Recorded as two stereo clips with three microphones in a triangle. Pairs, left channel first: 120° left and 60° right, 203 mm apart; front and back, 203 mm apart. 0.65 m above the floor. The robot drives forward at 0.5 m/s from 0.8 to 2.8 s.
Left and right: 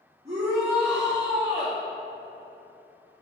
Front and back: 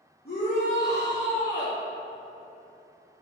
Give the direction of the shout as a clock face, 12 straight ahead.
12 o'clock.